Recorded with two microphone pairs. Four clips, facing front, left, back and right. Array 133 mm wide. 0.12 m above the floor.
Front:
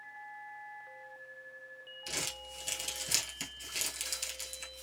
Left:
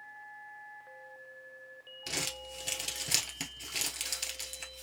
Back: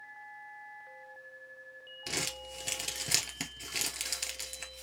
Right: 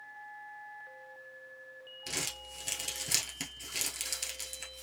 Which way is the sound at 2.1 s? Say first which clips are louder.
Left 2 dB, back 4 dB; 175° left.